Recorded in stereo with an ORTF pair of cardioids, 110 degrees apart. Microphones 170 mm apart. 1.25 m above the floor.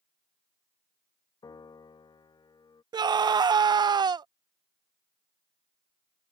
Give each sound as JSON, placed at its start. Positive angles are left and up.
{"t": 1.4, "sound": "a piano", "azimuth_deg": 25}
{"t": 2.9, "sound": "a scream", "azimuth_deg": -25}